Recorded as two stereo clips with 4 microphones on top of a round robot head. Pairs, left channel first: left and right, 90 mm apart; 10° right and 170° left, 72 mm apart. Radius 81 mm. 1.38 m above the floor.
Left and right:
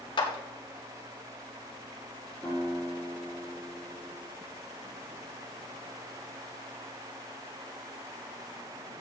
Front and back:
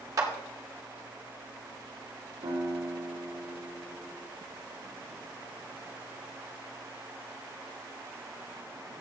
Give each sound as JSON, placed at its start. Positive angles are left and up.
{"t": 0.2, "sound": "a clap", "azimuth_deg": 125, "distance_m": 2.0}
{"t": 2.4, "sound": "a guitar", "azimuth_deg": 170, "distance_m": 8.0}